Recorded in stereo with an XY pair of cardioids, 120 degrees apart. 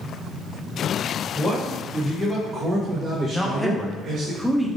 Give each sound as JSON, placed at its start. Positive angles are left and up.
{"t": 1.4, "sound": "a man speaking", "azimuth_deg": 10, "distance_m": 1.2}
{"t": 3.3, "sound": "a man speaking", "azimuth_deg": 0, "distance_m": 0.8}